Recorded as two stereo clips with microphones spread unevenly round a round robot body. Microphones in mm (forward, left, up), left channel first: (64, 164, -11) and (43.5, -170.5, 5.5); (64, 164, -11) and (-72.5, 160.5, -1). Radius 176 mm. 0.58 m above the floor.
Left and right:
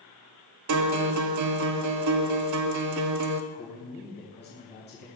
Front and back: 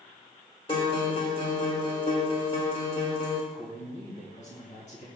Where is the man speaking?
25° left, 2.5 m.